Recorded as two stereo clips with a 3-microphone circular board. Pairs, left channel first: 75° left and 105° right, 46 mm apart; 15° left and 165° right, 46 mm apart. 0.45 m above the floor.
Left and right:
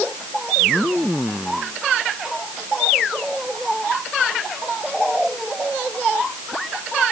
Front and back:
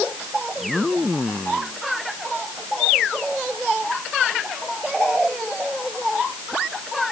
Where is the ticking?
No ticking in this recording.